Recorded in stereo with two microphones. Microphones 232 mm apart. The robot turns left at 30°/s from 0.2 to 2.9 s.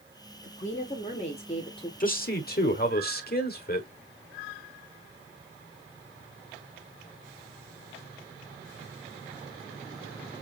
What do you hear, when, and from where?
0.4 s a woman speaking: 85° left, 1.3 m; by 1.9 s 40° left, 1.3 m
2.0 s a man speaking: 35° left (ahead or behind), 1.2 m; by 3.9 s 45° left (ahead or behind), 1.2 m